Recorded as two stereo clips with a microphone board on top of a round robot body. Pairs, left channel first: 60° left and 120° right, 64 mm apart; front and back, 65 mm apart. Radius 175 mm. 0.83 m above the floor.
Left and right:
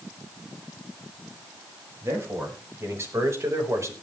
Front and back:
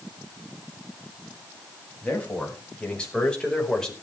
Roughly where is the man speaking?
Right.